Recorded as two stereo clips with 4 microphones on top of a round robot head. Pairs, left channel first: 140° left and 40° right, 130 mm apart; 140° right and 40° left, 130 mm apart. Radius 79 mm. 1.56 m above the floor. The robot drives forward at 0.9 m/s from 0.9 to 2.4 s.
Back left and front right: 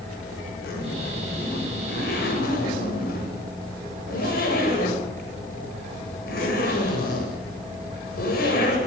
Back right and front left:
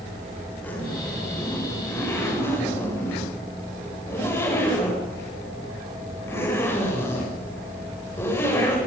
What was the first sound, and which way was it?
A zipper, 145° left.